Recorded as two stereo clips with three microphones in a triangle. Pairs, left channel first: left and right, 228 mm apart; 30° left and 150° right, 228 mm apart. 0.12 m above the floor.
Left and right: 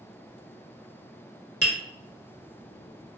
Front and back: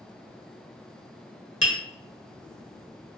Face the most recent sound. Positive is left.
turn(degrees=55)